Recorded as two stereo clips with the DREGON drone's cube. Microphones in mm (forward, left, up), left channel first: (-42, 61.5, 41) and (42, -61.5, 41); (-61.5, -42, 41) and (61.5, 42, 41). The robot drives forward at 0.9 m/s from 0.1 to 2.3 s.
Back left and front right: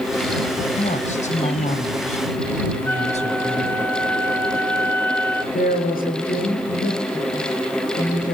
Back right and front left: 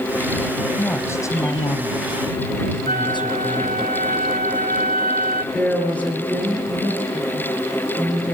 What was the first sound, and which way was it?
A woman speaking, 140° left.